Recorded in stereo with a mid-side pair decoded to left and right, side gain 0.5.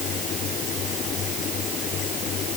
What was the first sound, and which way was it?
A fan, 60° left.